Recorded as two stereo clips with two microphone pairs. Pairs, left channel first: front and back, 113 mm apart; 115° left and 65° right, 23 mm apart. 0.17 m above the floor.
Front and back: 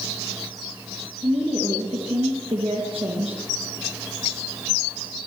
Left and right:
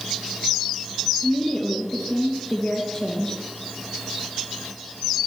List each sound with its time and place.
1.2 s a woman speaking: 160° right, 2.5 m